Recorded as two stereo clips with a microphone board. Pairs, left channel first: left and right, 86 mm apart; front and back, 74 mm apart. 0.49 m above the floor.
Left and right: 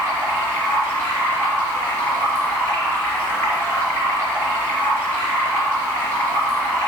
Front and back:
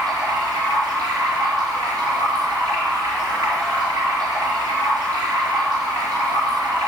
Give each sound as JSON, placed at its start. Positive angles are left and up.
{"t": 0.0, "sound": "running water", "azimuth_deg": 150, "distance_m": 3.5}